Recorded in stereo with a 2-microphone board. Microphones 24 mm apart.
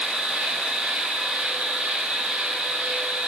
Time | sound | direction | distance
0.0 | an insect | 75° right (ahead or behind) | 0.7 m